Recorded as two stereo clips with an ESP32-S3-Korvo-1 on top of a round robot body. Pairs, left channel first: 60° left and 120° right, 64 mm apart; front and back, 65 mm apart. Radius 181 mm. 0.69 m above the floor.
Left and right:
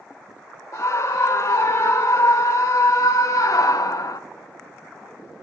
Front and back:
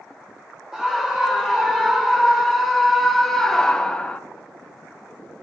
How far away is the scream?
About 4 m.